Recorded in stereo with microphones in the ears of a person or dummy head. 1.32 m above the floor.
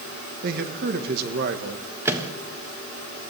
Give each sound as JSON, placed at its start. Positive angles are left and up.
{"t": 0.4, "sound": "a man speaking", "side_deg": -50, "distance_m": 1.6}
{"t": 2.0, "sound": "a microwave", "side_deg": -10, "distance_m": 1.5}